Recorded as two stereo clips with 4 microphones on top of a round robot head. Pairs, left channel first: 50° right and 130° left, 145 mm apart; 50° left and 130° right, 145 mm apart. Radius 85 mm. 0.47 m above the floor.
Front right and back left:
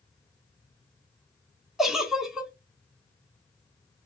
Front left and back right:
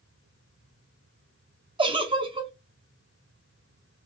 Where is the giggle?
145° right, 1.0 m.